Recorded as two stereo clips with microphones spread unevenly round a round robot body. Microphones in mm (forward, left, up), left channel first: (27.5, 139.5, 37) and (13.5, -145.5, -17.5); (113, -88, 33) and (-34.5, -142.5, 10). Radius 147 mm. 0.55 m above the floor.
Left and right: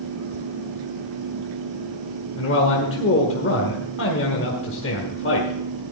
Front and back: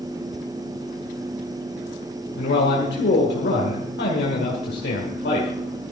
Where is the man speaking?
40° left, 1.8 m.